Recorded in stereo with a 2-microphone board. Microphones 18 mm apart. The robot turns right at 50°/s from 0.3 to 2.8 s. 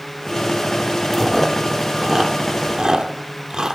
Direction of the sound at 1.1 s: 5° left (ahead or behind).